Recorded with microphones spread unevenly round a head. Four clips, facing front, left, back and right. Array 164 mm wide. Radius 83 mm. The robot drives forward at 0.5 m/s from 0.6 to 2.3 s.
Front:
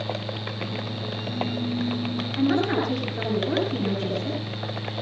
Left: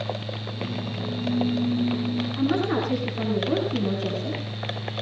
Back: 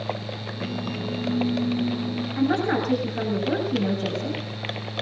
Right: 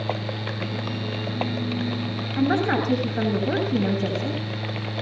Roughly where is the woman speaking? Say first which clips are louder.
Right 4 dB, even; behind right.